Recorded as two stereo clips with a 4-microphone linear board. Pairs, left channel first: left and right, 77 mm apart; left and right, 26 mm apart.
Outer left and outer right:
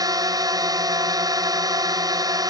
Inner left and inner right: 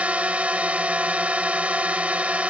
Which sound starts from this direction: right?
A drone, at 0.0 s.